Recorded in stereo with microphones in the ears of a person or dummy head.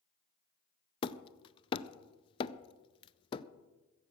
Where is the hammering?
25° left (ahead or behind), 0.5 m.